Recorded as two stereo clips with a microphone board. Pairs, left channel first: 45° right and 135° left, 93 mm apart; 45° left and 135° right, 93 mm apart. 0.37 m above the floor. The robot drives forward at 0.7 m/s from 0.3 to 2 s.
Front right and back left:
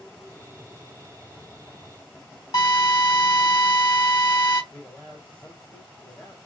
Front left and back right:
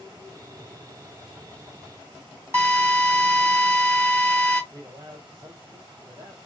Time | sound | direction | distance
2.5 | a drill | 80° right | 2.5 m
4.7 | a man speaking | 115° right | 2.5 m